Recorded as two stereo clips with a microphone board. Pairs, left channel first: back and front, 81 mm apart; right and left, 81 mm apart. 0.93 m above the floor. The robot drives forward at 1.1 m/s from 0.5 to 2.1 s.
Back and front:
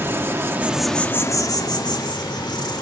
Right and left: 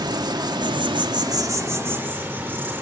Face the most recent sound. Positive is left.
turn(degrees=155)